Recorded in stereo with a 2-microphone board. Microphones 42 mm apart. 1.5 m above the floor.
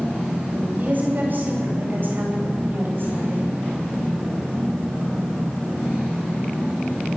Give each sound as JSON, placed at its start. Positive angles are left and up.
{"t": 0.8, "sound": "a woman speaking", "side_deg": -45, "distance_m": 9.5}